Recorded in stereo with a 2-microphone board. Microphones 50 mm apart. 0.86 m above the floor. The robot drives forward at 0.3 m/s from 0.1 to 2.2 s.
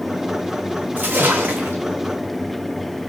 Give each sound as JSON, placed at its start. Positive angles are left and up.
{"t": 1.0, "sound": "a splash", "side_deg": -40, "distance_m": 1.3}